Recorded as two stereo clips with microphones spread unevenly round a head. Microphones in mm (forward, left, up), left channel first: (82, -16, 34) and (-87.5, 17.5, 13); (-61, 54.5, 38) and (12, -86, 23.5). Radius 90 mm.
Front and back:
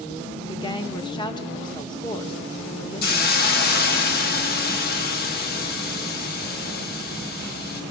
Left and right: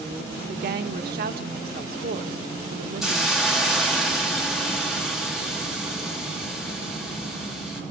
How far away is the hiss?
About 1.7 m.